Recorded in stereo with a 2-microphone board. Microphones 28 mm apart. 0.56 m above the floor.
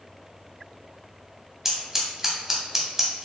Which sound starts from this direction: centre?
Scissors, at 1.6 s.